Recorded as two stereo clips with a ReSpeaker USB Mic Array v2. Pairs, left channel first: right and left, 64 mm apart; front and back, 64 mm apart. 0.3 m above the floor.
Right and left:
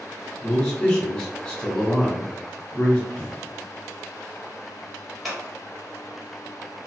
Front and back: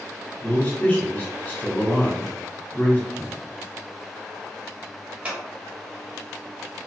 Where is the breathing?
35° right, 1.1 m.